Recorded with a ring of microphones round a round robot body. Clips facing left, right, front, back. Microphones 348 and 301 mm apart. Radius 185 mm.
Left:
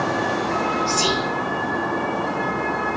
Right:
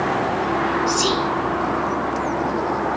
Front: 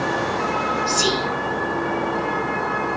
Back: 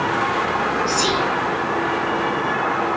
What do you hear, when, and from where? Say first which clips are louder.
0.9 s whispering: right 2 dB, even; 20° left, 0.8 m